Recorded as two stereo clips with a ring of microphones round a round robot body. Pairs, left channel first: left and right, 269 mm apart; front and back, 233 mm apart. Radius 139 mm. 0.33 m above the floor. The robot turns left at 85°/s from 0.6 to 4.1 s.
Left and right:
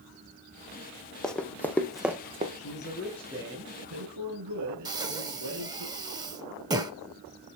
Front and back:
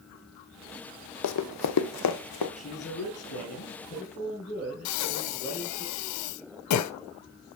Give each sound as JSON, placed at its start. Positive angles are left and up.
{"t": 1.2, "sound": "running footsteps", "azimuth_deg": 0, "distance_m": 0.8}
{"t": 2.6, "sound": "a man speaking", "azimuth_deg": 60, "distance_m": 5.0}
{"t": 4.8, "sound": "breathing", "azimuth_deg": -15, "distance_m": 0.8}